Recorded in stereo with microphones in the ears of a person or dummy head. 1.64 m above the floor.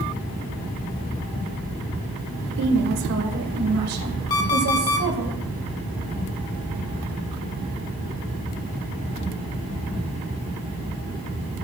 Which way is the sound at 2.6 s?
55° right (ahead or behind).